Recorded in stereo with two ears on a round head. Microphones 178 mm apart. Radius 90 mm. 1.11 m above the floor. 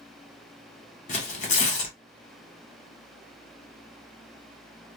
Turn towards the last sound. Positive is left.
turn(degrees=40)  # may be behind; listen again after turning